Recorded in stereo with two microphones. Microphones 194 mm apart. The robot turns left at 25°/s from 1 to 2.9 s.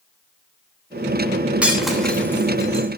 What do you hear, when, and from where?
1.6 s breaking glass: 5° right (ahead or behind), 3 m; by 2.9 s 25° left (ahead or behind), 3 m